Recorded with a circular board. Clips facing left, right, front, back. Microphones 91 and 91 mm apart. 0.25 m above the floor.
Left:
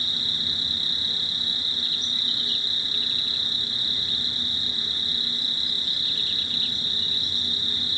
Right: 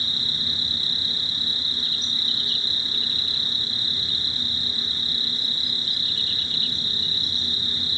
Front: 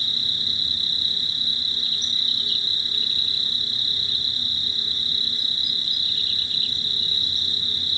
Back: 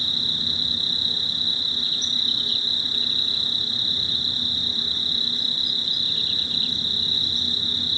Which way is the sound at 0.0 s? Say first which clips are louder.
Right 1 dB, back 3 dB; 135° right.